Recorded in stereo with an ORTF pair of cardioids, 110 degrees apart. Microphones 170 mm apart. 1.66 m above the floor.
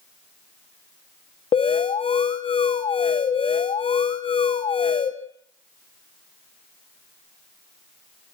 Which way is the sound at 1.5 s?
30° left.